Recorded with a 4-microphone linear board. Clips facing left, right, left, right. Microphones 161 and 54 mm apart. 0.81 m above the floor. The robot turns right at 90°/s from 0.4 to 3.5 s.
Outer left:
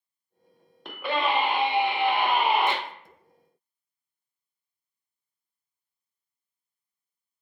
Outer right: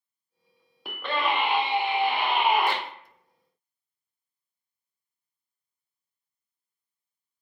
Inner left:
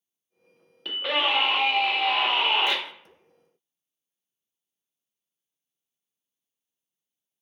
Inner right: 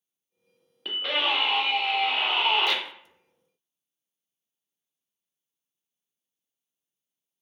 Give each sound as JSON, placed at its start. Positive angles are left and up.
{"t": 0.8, "sound": "a scream", "azimuth_deg": -10, "distance_m": 0.7}